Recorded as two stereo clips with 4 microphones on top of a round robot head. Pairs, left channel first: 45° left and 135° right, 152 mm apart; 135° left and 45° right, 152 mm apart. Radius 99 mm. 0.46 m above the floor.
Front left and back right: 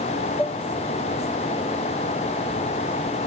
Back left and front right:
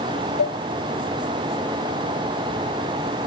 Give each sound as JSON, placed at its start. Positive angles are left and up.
{"t": 0.4, "sound": "dishes clattering", "azimuth_deg": 125}